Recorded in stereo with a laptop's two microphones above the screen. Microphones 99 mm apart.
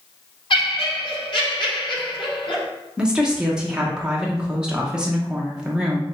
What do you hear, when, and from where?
0.5 s laughter: 60° left (ahead or behind), 1.3 m
3.0 s a woman speaking: 10° right (ahead or behind), 0.7 m